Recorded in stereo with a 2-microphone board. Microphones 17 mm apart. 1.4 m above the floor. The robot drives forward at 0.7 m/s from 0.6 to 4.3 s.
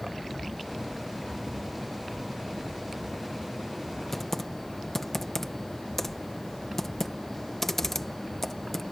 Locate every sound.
4.1 s typing on a keyboard: 10° left (ahead or behind)